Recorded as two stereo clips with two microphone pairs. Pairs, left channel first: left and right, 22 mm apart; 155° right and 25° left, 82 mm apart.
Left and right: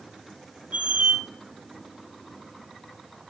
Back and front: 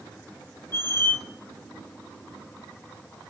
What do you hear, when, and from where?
0.7 s a squeak: 95° right, 0.9 m